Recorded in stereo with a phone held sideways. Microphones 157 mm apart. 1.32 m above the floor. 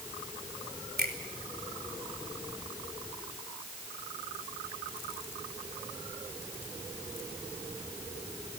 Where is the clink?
I don't hear a clink.